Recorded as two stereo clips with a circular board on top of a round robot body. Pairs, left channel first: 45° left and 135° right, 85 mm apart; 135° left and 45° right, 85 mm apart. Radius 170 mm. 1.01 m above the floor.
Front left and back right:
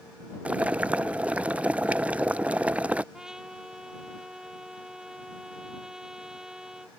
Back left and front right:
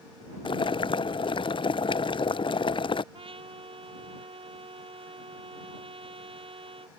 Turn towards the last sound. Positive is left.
turn(degrees=-50)